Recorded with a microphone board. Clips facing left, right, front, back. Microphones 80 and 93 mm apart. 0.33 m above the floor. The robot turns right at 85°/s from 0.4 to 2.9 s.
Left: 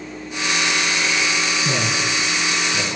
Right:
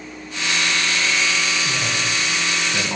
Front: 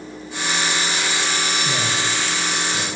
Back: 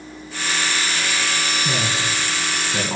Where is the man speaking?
105° left, 4 m; by 3.0 s 150° right, 4 m.